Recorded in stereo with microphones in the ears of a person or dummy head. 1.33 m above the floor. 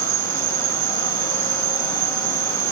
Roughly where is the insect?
Right.